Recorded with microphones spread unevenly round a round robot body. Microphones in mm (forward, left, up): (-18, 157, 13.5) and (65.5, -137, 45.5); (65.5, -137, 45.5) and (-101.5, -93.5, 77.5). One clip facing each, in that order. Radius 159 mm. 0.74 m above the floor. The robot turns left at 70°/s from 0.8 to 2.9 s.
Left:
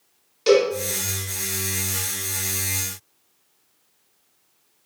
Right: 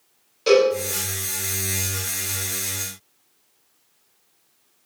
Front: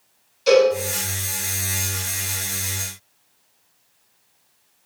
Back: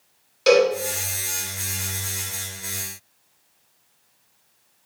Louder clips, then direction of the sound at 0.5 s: Right 1 dB, front 2 dB; 175° left.